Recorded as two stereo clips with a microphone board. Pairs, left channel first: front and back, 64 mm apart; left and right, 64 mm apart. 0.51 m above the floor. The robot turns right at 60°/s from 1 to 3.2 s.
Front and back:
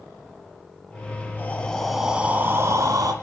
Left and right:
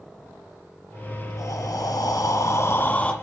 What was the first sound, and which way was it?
Breathing, 55° left.